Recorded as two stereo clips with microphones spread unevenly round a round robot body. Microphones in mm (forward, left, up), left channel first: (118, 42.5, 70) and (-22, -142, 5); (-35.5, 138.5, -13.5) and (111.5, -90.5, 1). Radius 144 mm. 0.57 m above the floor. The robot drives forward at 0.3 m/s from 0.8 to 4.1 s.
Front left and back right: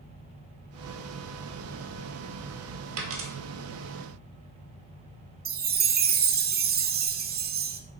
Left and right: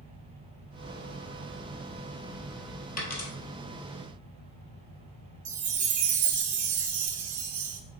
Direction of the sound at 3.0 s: 175° right.